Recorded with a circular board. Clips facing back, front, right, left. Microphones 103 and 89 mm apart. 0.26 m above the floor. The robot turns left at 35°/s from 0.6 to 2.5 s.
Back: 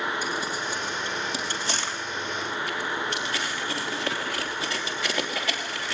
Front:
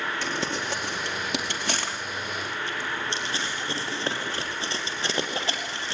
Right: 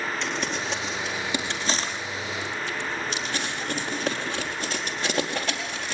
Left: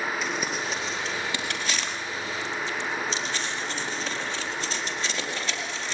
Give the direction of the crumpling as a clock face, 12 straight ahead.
12 o'clock.